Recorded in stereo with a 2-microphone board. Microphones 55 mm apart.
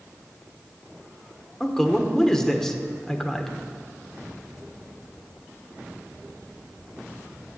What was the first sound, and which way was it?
A man speaking, 10° left (ahead or behind).